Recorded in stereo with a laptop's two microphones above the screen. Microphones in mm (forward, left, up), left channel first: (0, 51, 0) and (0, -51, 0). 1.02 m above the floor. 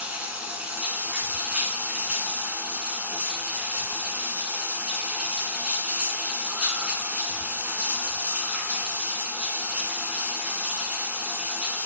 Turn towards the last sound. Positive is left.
turn(degrees=-10)  # may be behind; listen again after turning